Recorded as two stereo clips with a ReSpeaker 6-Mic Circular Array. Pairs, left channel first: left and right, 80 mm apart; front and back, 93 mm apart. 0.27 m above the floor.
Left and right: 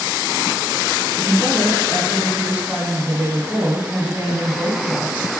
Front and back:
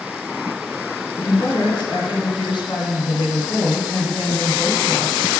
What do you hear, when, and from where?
1.2 s a woman speaking: 15° right, 1.8 m